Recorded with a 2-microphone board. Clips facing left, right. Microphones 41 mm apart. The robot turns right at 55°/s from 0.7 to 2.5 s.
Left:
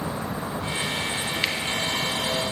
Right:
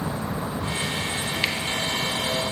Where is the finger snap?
Centre (ahead or behind), 1.0 m; by 1.6 s 5° left (ahead or behind), 1.0 m.